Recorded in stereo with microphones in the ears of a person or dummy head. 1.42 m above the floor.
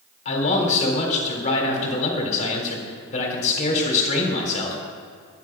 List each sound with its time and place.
0.2 s a man speaking: 40° left (ahead or behind), 3.5 m